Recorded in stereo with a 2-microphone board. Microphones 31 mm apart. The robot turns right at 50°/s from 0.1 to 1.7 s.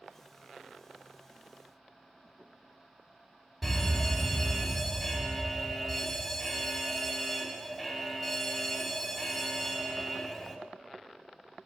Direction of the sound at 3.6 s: 5° right (ahead or behind).